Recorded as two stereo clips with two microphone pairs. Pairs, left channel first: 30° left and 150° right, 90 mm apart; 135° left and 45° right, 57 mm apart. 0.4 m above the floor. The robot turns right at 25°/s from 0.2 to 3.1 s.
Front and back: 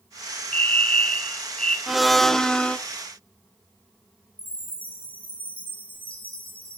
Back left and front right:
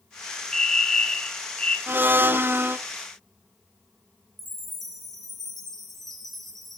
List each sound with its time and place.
0.5 s a fire alarm: 65° left, 2 m; by 1.8 s 100° left, 2 m
1.9 s a blender: 65° right, 0.8 m; by 2.8 s 40° right, 0.8 m
4.4 s a chime: 45° left, 7 m